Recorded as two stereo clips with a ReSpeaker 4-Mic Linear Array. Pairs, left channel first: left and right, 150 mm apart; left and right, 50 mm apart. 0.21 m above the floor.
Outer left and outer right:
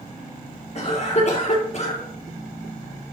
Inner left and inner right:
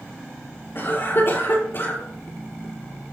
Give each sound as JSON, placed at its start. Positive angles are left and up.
{"t": 0.8, "sound": "a cough", "side_deg": 50, "distance_m": 4.5}